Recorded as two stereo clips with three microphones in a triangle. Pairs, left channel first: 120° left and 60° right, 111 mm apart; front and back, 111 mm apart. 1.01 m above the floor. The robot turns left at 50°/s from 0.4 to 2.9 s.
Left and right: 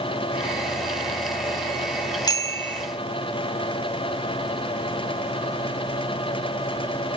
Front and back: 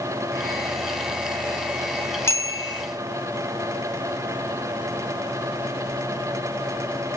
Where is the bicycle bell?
65° left, 2.5 m; by 2.8 s 40° left, 2.5 m.